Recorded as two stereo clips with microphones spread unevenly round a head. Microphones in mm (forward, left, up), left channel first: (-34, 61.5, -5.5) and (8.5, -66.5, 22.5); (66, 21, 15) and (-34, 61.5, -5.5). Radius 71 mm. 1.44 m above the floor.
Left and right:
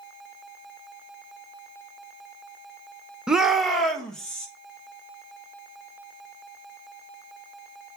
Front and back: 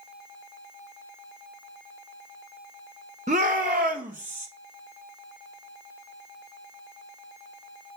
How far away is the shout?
About 0.9 m.